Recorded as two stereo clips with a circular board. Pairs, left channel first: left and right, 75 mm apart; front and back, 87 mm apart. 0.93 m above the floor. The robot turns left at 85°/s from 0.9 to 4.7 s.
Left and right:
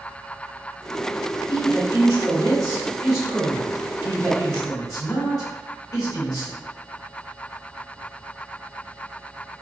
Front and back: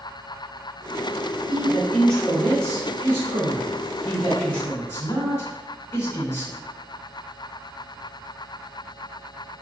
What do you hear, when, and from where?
1.5 s a man speaking: 25° right, 1.7 m; by 6.6 s 60° left, 1.7 m